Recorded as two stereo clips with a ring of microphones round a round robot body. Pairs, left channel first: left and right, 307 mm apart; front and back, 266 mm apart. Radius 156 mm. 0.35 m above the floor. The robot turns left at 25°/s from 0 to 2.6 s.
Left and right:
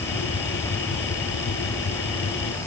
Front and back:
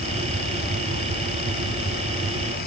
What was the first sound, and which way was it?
Only background noise.